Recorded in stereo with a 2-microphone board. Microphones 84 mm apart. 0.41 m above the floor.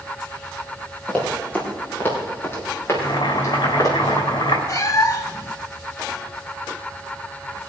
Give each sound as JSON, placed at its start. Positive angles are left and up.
{"t": 1.1, "sound": "running footsteps", "side_deg": 15, "distance_m": 5.5}
{"t": 2.9, "sound": "boiling", "side_deg": 65, "distance_m": 3.0}
{"t": 4.7, "sound": "a cat meowing", "side_deg": 45, "distance_m": 0.9}